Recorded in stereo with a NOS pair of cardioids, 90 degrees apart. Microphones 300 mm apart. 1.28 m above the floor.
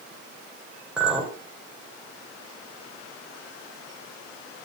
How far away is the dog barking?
No dog barking in this recording.